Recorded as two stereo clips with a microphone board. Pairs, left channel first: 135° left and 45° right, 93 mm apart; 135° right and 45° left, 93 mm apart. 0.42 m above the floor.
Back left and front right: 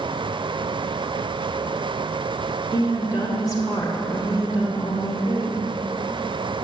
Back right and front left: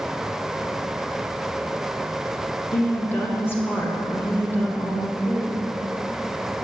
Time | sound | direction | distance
2.7 | a woman speaking | 165° left | 1.5 m